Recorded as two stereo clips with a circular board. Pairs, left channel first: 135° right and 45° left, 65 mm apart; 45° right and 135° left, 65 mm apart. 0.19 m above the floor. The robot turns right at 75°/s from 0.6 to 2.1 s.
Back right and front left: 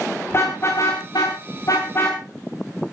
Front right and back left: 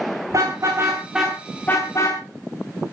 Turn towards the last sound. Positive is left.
turn(degrees=-75)